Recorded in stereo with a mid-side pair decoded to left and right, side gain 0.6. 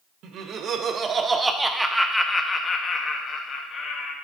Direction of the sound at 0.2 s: 60° right.